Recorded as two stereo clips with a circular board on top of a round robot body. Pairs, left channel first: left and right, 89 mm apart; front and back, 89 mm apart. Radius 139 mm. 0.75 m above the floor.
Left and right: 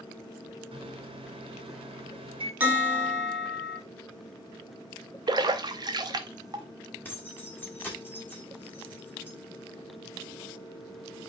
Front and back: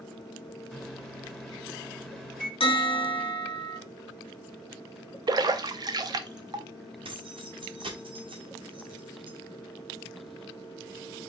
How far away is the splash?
About 0.5 m.